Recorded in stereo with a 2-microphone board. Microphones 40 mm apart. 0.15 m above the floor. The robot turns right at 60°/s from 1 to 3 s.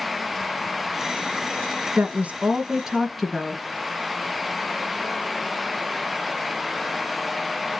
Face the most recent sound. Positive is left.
turn(degrees=0)